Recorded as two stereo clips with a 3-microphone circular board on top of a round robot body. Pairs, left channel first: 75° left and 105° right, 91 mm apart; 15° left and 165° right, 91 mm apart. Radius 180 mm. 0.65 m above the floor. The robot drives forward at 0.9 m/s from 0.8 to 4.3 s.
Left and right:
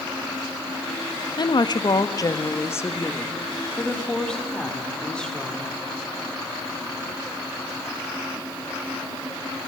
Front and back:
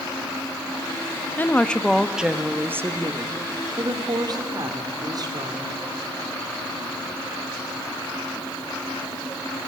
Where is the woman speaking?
80° left, 1.5 m; by 5.8 s 155° left, 3 m.